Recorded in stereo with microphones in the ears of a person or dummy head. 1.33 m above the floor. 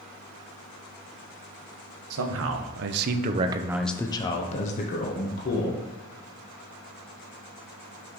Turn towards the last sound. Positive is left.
turn(degrees=50)  # may be behind; listen again after turning